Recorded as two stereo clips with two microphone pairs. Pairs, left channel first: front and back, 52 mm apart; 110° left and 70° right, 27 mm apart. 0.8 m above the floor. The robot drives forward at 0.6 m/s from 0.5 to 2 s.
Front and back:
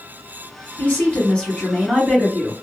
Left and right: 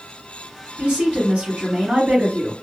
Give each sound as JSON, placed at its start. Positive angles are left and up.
{"t": 0.8, "sound": "a woman speaking", "azimuth_deg": -55, "distance_m": 1.5}